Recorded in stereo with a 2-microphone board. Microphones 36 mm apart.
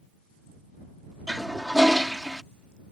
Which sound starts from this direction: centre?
A toilet flushing, at 1.3 s.